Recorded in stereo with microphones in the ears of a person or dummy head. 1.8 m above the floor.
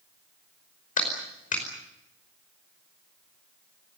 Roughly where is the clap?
Left.